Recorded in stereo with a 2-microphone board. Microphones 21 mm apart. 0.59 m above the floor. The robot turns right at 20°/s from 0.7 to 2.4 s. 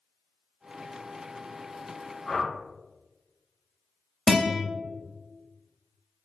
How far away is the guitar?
About 1.1 m.